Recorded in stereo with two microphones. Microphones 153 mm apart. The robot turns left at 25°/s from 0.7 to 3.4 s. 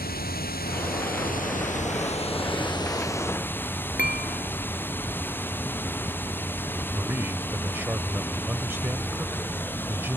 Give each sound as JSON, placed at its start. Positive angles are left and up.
{"t": 0.0, "sound": "running water", "azimuth_deg": 80}
{"t": 4.0, "sound": "dishes clattering", "side_deg": 75}
{"t": 6.9, "sound": "a man speaking", "side_deg": -15}